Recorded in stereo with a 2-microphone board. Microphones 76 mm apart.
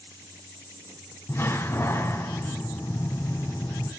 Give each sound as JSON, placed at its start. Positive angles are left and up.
{"t": 1.3, "sound": "a door slam", "side_deg": 35, "distance_m": 3.0}